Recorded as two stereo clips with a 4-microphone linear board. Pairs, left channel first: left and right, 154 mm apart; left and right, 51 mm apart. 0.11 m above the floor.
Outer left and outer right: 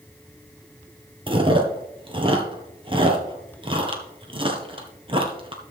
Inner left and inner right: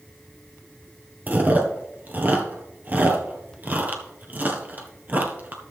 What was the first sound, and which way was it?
Chewing, 35° right (ahead or behind).